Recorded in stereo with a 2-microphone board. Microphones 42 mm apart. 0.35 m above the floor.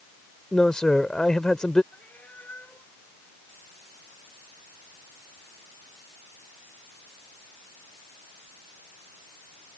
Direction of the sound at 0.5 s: 15° left (ahead or behind).